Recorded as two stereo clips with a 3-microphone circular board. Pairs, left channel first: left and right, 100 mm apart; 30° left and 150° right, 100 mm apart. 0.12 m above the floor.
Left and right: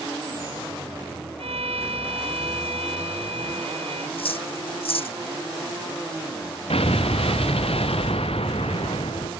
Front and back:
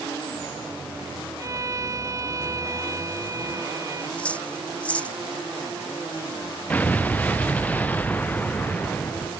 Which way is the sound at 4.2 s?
105° left.